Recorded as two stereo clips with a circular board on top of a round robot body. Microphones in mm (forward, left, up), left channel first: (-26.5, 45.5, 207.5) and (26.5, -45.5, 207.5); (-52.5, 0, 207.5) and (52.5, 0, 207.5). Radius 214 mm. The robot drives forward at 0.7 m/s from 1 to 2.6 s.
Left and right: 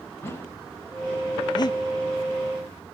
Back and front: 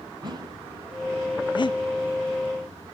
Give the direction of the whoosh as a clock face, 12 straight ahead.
10 o'clock.